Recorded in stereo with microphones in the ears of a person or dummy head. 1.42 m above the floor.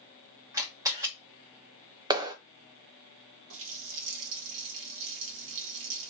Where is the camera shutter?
15° right (ahead or behind), 1.2 m.